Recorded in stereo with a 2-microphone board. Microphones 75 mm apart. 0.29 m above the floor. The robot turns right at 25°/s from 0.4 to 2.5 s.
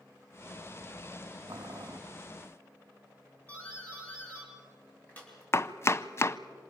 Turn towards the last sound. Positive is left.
turn(degrees=35)  # may be behind; listen again after turning